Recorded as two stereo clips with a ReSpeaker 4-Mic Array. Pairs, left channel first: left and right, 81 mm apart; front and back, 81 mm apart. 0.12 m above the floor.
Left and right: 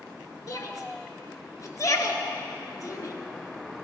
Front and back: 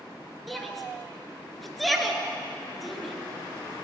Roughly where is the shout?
Left.